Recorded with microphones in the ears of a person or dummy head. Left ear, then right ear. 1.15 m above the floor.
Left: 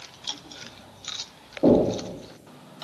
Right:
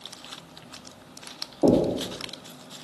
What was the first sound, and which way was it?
Knocking, 15° right (ahead or behind).